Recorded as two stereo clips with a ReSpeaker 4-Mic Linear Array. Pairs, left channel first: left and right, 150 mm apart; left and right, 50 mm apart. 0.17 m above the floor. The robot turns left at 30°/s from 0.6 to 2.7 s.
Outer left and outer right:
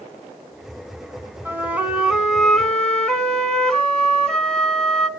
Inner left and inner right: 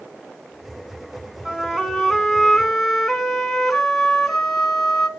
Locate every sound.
1.4 s a flute: 15° right (ahead or behind), 1.6 m; by 5.1 s 5° left (ahead or behind), 1.6 m